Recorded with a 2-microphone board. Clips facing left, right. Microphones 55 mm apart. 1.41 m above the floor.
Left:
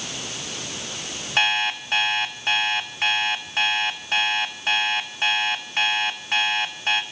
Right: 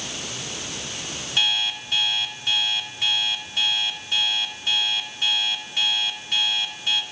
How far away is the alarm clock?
About 2 m.